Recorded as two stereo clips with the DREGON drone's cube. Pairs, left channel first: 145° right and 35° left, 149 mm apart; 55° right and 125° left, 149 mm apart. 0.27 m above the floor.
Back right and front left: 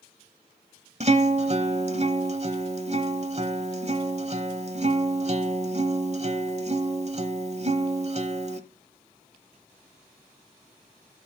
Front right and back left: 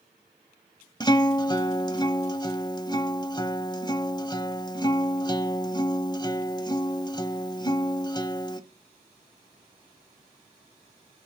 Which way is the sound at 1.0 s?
Straight ahead.